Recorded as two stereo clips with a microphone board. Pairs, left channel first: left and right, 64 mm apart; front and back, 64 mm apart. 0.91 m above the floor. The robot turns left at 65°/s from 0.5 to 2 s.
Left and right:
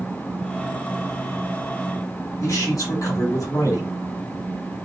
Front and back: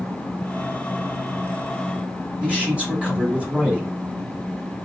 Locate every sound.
2.4 s a man speaking: 110° left, 2.5 m